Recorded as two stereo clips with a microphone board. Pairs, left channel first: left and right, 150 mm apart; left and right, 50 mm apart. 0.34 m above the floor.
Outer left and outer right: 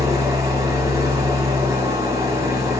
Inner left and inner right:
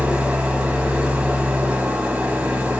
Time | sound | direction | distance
0.0 | an engine running | 20° right (ahead or behind) | 2 m